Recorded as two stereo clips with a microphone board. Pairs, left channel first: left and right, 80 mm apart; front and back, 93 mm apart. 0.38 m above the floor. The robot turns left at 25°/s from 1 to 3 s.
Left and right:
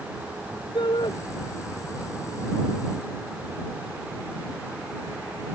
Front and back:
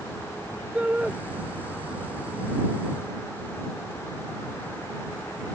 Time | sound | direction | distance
0.8 | a shout | 105° left | ?